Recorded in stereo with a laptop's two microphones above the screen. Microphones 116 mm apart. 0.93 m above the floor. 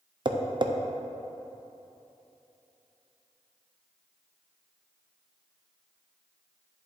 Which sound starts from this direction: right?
Tapping, at 0.2 s.